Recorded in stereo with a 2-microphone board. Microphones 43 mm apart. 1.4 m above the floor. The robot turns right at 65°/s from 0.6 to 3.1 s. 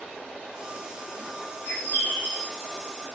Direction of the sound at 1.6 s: 130° left.